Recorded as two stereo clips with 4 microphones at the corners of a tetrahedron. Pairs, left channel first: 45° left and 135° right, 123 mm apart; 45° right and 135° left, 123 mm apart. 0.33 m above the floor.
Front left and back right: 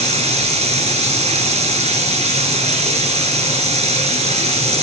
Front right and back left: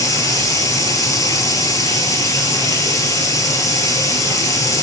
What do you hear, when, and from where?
0.0 s running water: 110° right, 1.6 m